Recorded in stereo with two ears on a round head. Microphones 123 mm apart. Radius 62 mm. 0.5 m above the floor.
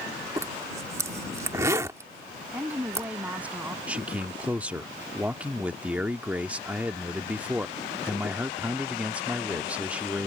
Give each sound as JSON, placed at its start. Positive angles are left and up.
{"t": 0.4, "sound": "a zipper", "side_deg": -20}
{"t": 2.5, "sound": "a woman speaking", "side_deg": -10}
{"t": 3.9, "sound": "a man speaking", "side_deg": -10}